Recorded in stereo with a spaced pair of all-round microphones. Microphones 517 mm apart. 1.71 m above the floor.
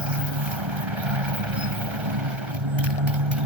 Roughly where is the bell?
I don't hear a bell.